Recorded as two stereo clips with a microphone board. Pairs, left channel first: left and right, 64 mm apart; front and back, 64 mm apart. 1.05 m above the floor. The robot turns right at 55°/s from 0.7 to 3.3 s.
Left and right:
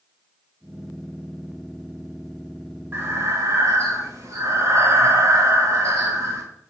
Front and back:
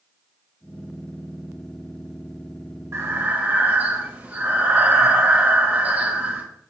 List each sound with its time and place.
2.9 s breathing: 145° right, 1.5 m; by 6.4 s 120° right, 1.5 m